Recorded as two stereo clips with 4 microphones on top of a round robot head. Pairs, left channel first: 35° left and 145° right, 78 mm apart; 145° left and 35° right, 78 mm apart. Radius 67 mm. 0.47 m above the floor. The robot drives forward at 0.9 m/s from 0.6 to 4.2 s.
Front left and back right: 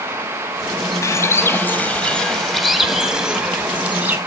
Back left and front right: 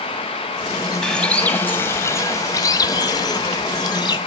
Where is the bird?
60° left, 1.8 m; by 4.2 s 155° left, 3 m.